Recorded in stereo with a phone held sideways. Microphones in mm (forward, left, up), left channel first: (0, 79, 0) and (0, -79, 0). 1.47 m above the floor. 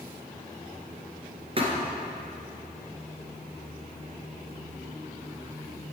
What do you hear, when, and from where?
1.6 s a thud: 35° right (ahead or behind), 2 m